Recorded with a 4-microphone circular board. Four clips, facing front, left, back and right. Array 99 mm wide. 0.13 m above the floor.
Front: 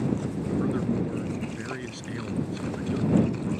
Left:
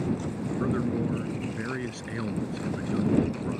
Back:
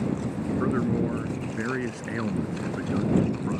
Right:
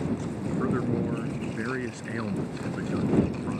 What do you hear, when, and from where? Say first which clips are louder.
0.6 s a man speaking: even, back 3 dB; 155° right